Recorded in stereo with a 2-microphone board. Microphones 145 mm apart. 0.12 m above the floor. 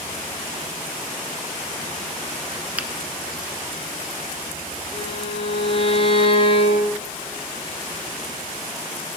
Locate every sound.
2.8 s a finger snap: 10° right (ahead or behind), 0.9 m
4.9 s a violin: 40° left (ahead or behind), 2 m